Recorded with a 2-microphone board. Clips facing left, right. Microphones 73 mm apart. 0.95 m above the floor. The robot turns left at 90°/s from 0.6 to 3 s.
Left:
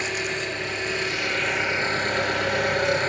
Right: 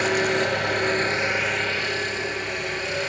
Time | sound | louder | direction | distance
0.0 | an engine running | right 7 dB | 100° right | 5.5 m